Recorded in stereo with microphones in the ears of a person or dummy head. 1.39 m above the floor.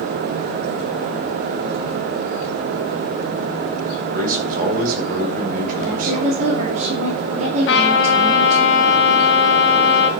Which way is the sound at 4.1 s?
50° right (ahead or behind).